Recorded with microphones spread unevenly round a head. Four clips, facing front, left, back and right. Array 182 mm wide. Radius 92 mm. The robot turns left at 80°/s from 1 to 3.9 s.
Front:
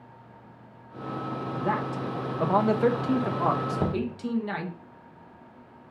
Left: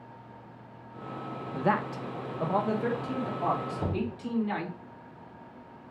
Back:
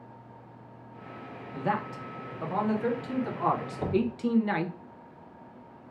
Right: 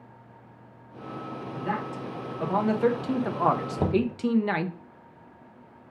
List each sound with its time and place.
1.5 s a man speaking: 85° left, 0.6 m; by 4.8 s 105° right, 0.6 m
3.8 s knocking: 50° right, 0.6 m; by 4.2 s 60° right, 0.6 m